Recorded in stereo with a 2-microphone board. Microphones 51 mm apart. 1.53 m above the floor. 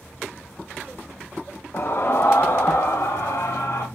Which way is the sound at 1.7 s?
40° left (ahead or behind).